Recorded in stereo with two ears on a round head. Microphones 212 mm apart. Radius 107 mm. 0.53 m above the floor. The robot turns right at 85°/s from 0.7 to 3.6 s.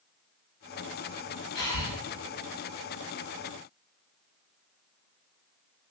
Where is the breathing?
100° left, 1.6 m; by 1.9 s 130° left, 1.6 m.